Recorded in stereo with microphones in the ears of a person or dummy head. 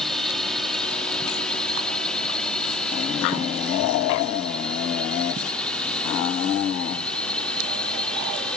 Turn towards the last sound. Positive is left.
turn(degrees=5)  # may be behind; listen again after turning